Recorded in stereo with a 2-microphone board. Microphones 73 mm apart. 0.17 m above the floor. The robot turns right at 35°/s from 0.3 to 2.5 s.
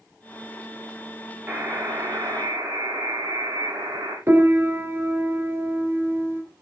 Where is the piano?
35° right (ahead or behind), 2.5 m.